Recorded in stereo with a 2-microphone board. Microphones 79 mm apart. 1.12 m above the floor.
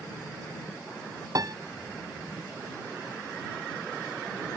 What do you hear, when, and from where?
1.4 s a piano: 45° right (ahead or behind)